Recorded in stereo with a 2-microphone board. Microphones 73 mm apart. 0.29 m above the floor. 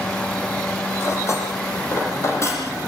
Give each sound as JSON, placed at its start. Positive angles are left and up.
{"t": 1.0, "sound": "cutlery clinking", "side_deg": 40, "distance_m": 7.5}